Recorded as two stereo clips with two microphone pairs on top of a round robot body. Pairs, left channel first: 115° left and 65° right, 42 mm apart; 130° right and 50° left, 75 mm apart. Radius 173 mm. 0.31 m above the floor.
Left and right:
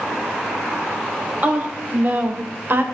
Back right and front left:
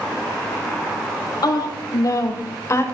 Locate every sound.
1.4 s a woman speaking: 105° right, 2.5 m; by 2.8 s 80° right, 2 m